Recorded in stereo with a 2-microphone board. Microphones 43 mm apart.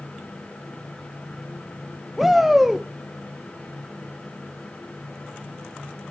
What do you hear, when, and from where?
2.2 s a shout: 5° right (ahead or behind), 0.6 m